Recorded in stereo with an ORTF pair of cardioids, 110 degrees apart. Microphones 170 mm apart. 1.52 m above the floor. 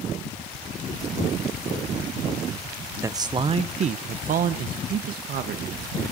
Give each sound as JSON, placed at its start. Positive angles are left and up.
{"t": 3.0, "sound": "a man speaking", "azimuth_deg": -15, "distance_m": 0.9}